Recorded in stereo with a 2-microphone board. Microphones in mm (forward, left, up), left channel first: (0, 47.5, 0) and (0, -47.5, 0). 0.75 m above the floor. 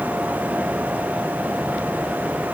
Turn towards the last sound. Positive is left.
No sound to turn to.